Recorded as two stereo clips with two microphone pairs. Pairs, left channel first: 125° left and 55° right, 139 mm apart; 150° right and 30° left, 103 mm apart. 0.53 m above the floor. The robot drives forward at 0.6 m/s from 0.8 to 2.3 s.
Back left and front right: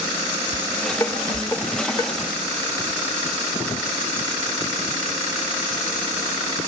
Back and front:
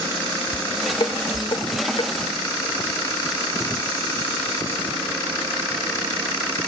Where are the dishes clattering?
165° right, 0.8 m; by 2.1 s 175° right, 1.5 m.